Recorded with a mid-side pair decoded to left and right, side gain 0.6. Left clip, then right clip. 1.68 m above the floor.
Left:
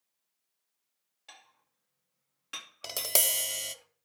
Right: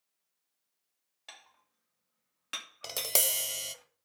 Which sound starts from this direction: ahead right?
Dishes clattering, at 1.3 s.